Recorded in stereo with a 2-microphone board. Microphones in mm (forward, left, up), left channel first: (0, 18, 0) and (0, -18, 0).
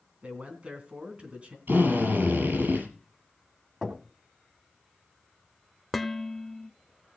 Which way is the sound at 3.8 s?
25° right (ahead or behind).